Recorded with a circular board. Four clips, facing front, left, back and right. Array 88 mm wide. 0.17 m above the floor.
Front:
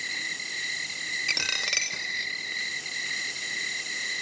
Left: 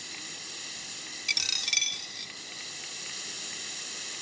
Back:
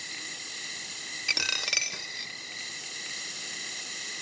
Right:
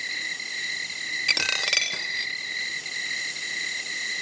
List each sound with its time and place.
0.0 s an insect: 55° right
1.3 s a dropped coin: 90° right